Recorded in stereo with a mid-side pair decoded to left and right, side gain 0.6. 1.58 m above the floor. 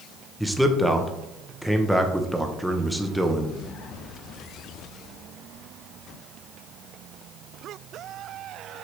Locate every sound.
0.4 s a man speaking: straight ahead, 1.0 m